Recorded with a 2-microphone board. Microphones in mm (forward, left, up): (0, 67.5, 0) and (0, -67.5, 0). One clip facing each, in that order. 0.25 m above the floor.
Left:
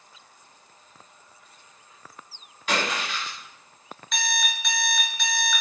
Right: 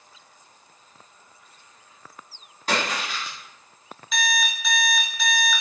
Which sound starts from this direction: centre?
An alarm clock, at 4.1 s.